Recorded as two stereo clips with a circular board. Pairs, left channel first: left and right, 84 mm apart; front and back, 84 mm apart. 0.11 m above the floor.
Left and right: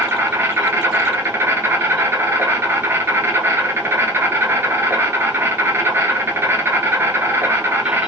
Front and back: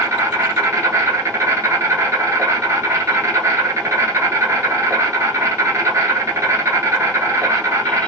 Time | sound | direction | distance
0.0 | an insect | 140° right | 0.7 m